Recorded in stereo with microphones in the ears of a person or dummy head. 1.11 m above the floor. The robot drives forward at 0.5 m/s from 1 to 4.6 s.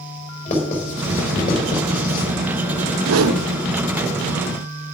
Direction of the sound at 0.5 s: 40° left (ahead or behind).